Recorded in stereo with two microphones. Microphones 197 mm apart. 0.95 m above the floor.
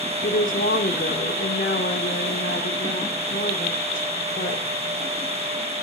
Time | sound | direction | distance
0.2 | a woman speaking | 80° left | 2.5 m